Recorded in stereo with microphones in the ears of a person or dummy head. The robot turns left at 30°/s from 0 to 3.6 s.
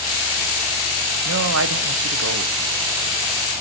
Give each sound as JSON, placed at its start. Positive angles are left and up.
{"t": 1.2, "sound": "a man speaking", "azimuth_deg": -65, "distance_m": 0.8}